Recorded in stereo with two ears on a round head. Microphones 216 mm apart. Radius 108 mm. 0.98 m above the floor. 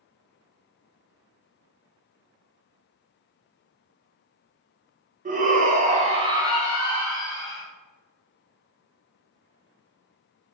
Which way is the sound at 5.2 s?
30° right (ahead or behind).